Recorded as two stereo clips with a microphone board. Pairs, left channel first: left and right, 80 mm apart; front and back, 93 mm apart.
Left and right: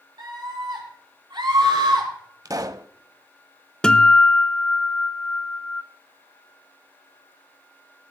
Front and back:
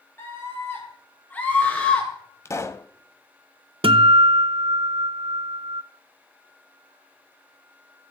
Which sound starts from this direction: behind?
A guitar, at 3.8 s.